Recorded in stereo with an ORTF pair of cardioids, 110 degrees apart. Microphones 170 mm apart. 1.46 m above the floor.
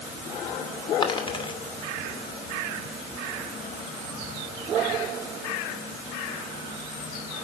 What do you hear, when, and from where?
1.0 s a dropped coin: 30° left, 2.5 m